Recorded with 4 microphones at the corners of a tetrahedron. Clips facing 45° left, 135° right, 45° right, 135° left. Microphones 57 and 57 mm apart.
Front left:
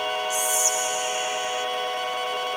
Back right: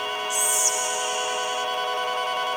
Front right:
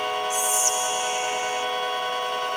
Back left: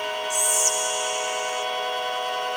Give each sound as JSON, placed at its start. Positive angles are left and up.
{"t": 0.3, "sound": "whispering", "azimuth_deg": -5, "distance_m": 0.9}